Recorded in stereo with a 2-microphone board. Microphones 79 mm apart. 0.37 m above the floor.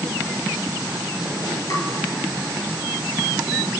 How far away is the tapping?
About 1.7 m.